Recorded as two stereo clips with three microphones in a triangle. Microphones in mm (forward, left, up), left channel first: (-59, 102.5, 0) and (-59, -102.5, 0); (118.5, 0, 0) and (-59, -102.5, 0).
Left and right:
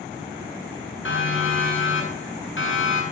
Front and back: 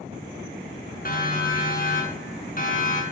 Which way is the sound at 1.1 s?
75° left.